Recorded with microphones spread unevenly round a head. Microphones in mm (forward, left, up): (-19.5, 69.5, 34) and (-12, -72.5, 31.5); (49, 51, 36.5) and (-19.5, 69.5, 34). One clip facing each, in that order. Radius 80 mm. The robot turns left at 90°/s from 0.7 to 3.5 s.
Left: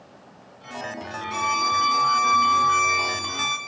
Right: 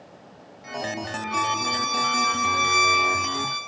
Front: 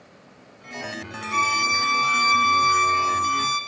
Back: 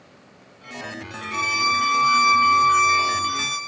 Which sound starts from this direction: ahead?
A violin, at 1.3 s.